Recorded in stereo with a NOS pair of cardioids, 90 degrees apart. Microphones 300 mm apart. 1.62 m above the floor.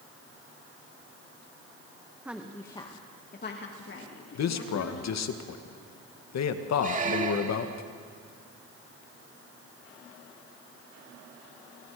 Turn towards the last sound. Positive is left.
turn(degrees=-25)